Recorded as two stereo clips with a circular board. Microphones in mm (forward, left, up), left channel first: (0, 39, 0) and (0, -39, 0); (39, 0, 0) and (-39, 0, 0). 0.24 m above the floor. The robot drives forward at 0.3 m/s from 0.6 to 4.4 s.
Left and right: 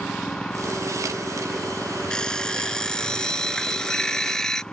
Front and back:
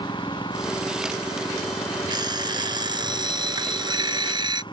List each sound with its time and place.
0.0 s an engine running: 10° left
2.1 s an alarm clock: 170° left